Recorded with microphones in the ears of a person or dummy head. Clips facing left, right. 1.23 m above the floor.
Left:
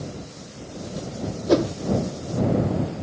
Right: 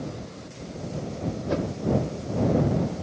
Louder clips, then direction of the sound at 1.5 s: Left 10 dB; 65° left (ahead or behind).